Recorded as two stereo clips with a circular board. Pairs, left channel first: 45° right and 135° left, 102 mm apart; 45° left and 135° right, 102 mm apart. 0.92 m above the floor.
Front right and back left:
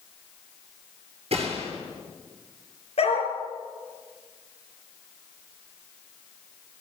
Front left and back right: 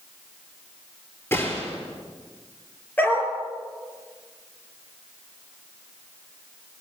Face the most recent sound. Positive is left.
turn(degrees=-30)